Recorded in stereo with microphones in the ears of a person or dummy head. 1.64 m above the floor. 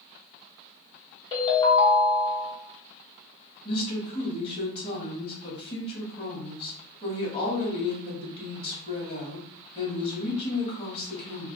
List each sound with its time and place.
1.3 s a ringtone: 30° left (ahead or behind), 1.2 m
3.6 s a woman speaking: 35° left (ahead or behind), 1.5 m